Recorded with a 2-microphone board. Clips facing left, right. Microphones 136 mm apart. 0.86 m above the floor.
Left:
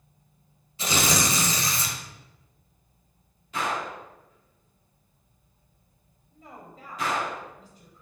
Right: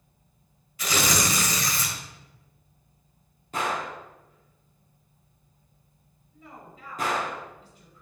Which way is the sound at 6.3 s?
45° left (ahead or behind).